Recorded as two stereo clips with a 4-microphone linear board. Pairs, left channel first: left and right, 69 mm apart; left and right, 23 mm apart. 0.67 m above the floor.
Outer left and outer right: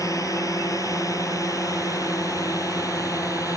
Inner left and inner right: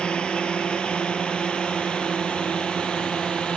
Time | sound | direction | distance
0.0 | a drone | 55° left (ahead or behind) | ?